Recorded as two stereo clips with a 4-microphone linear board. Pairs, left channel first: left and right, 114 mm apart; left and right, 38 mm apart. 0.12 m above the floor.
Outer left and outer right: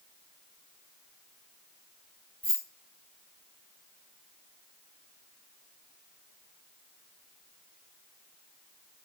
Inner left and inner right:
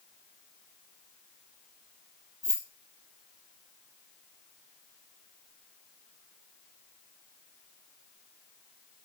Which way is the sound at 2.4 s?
60° left (ahead or behind).